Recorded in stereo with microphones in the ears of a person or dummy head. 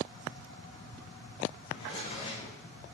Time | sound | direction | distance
1.7 | a drawer | 40° left (ahead or behind) | 3 m